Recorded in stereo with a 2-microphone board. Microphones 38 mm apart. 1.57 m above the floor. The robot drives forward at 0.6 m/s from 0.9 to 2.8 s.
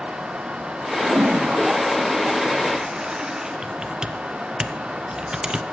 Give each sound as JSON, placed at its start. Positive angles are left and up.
{"t": 1.0, "sound": "a toilet flushing", "side_deg": -60, "distance_m": 0.5}
{"t": 3.6, "sound": "typing on a keyboard", "side_deg": -20, "distance_m": 0.7}